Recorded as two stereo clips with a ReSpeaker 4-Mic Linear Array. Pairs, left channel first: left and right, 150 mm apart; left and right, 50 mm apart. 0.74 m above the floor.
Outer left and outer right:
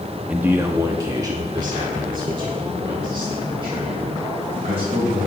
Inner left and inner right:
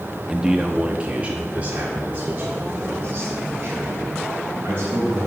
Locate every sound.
0.3 s a man speaking: 10° right (ahead or behind), 0.8 m; by 5.3 s 40° right (ahead or behind), 4 m